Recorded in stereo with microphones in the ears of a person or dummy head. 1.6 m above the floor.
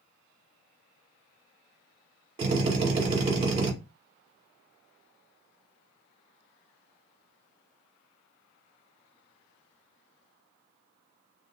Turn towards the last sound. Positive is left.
turn(degrees=-30)  # may be behind; listen again after turning